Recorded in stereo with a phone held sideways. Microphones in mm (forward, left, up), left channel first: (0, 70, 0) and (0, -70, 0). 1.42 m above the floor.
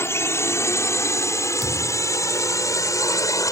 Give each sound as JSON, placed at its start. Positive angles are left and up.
{"t": 0.0, "sound": "a drone", "side_deg": 20}
{"t": 1.6, "sound": "a thud", "side_deg": -25}